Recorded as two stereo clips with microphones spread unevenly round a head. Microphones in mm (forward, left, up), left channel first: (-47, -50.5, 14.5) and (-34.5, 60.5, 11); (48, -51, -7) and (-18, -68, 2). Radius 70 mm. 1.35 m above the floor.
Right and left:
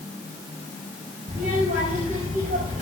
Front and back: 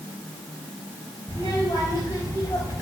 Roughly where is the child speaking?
Left.